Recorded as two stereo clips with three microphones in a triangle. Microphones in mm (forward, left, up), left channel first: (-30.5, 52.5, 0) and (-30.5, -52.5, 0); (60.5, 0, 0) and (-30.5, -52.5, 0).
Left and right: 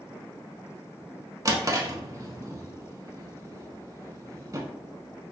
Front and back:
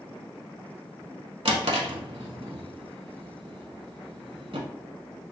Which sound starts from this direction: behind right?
A drawer, at 1.4 s.